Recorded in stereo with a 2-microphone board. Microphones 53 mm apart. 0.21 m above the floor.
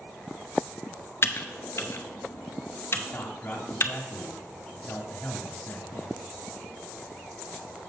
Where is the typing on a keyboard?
45° left (ahead or behind), 0.7 m.